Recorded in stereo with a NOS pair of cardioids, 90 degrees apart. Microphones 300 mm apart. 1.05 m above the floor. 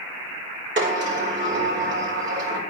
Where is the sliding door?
40° right, 4.5 m.